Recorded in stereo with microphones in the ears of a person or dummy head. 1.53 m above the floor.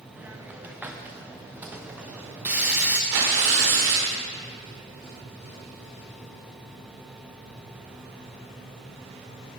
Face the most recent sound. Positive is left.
turn(degrees=-65)  # may be behind; listen again after turning